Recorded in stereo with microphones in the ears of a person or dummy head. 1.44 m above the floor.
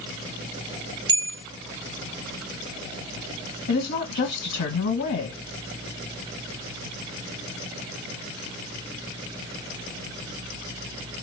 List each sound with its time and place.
1.1 s a bell: 20° right (ahead or behind), 0.5 m
3.7 s a woman speaking: 55° left (ahead or behind), 1.5 m